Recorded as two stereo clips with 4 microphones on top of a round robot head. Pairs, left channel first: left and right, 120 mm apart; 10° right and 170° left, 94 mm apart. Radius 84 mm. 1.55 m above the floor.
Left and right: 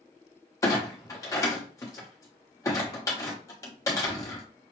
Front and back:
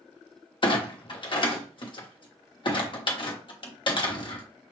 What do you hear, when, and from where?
0.6 s a clunk: 20° left, 0.9 m